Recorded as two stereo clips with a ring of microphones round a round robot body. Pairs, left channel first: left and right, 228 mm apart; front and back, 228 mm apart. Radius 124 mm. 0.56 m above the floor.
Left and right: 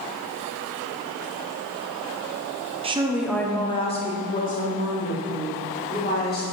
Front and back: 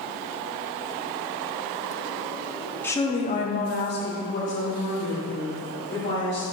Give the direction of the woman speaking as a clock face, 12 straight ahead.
2 o'clock.